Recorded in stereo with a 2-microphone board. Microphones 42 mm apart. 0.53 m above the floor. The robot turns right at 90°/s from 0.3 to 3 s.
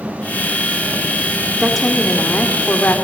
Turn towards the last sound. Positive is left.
turn(degrees=115)